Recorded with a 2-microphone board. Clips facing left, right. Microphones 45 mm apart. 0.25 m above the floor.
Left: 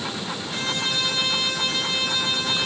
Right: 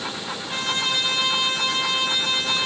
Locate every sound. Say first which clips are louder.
0.5 s a trumpet: right 3 dB; 40° right (ahead or behind), 7.5 m